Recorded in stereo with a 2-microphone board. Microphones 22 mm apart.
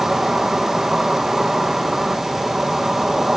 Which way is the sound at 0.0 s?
30° right (ahead or behind).